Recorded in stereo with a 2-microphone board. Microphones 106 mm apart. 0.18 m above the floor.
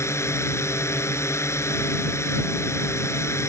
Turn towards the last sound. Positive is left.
turn(degrees=25)  # may be behind; listen again after turning